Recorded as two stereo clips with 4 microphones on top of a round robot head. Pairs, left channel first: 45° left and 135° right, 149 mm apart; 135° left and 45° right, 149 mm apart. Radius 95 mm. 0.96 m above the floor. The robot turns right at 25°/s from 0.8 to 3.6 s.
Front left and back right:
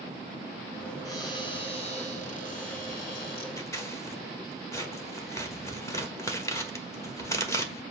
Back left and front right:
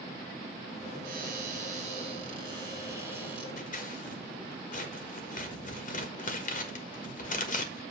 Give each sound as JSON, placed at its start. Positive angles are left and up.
{"t": 1.1, "sound": "a cupboard door", "azimuth_deg": -20, "distance_m": 1.8}
{"t": 3.6, "sound": "scissors", "azimuth_deg": 115, "distance_m": 1.4}